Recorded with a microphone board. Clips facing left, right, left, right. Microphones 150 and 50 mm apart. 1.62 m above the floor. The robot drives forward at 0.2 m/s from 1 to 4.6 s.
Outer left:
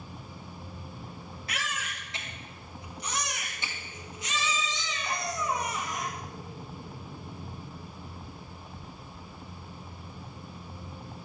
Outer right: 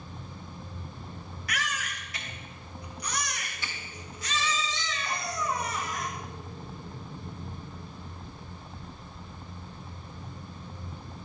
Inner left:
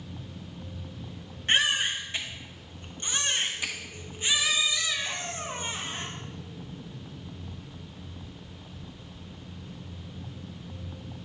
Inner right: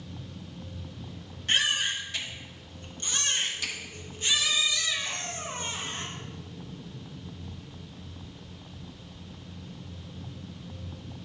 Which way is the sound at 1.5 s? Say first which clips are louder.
Outer right 2 dB, inner left 2 dB; 25° left (ahead or behind).